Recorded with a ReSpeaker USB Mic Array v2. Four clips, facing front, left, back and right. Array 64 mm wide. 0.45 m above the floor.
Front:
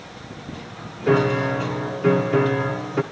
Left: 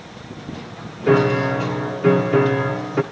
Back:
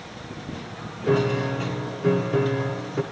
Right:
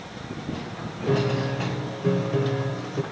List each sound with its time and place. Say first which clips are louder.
1.1 s a piano: left 8 dB, front 3 dB; 65° left, 0.8 m